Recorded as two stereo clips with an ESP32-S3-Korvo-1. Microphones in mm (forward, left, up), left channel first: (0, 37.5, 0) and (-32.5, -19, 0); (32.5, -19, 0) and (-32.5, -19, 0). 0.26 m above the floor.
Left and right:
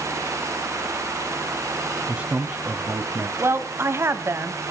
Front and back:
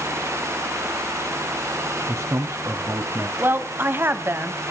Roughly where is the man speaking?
Behind.